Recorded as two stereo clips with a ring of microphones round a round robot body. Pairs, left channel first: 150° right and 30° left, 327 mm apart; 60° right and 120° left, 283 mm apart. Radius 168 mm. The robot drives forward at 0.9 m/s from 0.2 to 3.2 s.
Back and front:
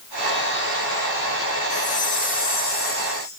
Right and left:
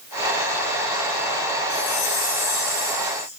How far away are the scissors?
No scissors in this recording.